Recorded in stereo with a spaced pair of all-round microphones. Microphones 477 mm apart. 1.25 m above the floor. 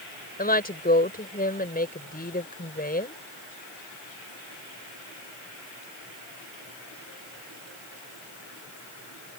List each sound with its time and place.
0.4 s a woman speaking: 20° left (ahead or behind)